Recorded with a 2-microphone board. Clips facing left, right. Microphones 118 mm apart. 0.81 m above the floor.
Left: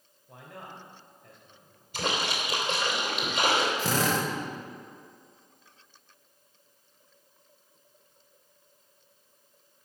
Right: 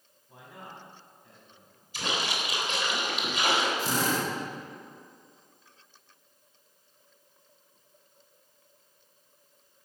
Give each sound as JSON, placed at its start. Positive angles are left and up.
{"t": 0.3, "sound": "a man speaking", "side_deg": 65, "distance_m": 3.5}
{"t": 1.9, "sound": "a splash", "side_deg": 50, "distance_m": 3.0}
{"t": 3.8, "sound": "a drill", "side_deg": 75, "distance_m": 1.6}